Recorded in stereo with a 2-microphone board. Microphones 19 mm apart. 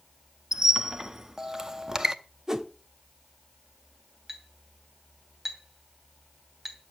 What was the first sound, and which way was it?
A squeak, 25° right (ahead or behind).